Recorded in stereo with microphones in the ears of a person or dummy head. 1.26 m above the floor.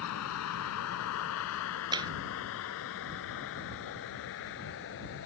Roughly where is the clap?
Right.